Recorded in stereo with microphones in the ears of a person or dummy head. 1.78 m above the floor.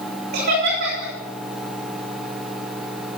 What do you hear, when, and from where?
0.3 s laughter: 60° right (ahead or behind), 3.5 m